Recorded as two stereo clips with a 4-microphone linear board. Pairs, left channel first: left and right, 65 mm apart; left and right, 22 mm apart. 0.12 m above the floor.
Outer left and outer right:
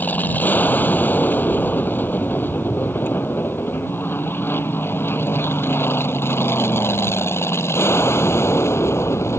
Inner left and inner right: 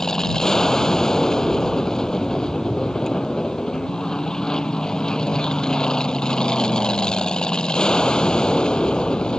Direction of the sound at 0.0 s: 25° left (ahead or behind).